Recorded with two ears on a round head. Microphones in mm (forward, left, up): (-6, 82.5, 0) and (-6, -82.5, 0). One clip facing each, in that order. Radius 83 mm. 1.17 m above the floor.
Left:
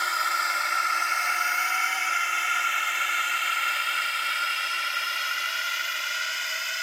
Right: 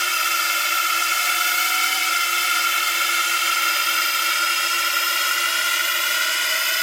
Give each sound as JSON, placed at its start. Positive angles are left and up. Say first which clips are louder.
{"t": 0.0, "sound": "a drone", "louder": "right 2 dB", "side_deg": -35}